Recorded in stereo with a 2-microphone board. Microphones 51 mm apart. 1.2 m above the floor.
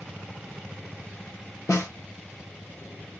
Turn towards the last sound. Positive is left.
turn(degrees=80)